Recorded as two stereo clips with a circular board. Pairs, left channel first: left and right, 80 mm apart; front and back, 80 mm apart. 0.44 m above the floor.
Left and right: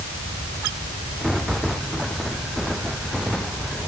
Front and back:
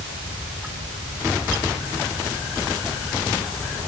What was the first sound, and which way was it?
Only background noise.